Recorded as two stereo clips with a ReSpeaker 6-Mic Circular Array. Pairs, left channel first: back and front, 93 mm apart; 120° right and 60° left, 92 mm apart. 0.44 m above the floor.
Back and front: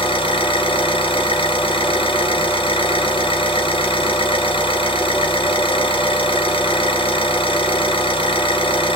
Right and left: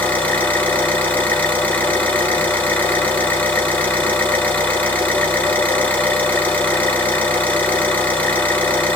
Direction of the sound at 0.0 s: 165° left.